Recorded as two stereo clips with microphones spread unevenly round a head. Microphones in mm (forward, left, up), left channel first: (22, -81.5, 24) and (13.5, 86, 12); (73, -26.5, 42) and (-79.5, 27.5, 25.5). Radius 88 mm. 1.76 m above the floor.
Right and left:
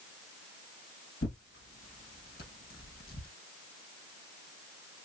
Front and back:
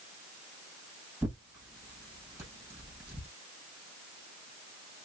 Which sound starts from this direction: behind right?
Tearing paper, at 1.2 s.